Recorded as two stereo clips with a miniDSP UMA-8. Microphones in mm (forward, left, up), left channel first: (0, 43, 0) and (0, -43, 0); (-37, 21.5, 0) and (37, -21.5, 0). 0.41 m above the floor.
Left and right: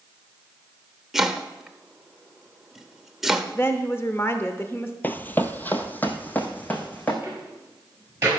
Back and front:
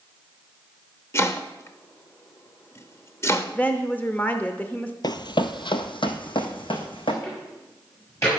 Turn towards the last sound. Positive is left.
turn(degrees=-155)